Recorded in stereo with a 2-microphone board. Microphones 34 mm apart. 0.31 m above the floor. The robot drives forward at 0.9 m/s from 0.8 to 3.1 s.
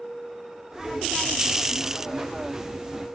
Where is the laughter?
No laughter in this recording.